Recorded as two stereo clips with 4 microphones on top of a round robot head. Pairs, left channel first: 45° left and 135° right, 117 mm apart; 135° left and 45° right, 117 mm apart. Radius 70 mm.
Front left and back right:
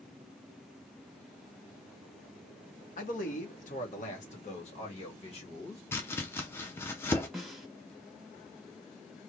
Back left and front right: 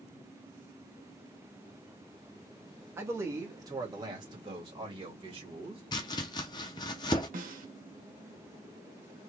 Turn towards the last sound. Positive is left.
turn(degrees=-50)